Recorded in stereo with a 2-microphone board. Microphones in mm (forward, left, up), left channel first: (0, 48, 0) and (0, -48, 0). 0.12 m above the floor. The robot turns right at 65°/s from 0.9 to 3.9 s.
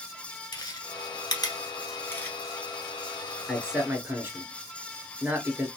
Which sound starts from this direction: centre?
A man speaking, at 3.5 s.